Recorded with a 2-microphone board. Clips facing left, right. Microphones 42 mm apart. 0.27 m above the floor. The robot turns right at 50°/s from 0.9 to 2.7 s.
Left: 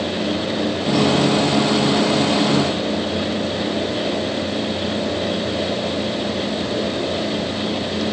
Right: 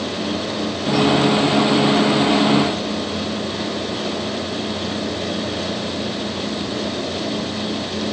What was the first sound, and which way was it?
Only background noise.